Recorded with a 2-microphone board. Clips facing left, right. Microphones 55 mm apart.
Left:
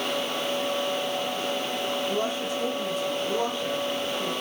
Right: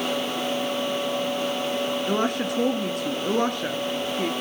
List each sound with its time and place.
2.1 s a woman speaking: 60° right (ahead or behind), 2.5 m